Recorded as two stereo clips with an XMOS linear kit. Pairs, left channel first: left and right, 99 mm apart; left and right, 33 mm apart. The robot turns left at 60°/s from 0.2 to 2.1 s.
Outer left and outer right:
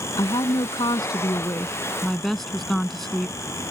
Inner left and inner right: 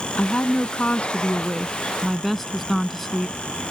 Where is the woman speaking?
115° left; by 3.7 s 5° left.